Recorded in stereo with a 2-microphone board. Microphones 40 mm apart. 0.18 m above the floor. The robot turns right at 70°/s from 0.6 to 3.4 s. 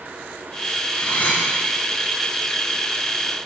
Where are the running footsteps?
No running footsteps in this recording.